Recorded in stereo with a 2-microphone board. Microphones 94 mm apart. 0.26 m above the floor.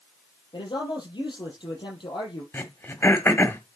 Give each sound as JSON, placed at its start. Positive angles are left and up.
{"t": 0.5, "sound": "a man speaking", "side_deg": 60, "distance_m": 6.0}
{"t": 2.5, "sound": "throat clearing", "side_deg": 25, "distance_m": 1.5}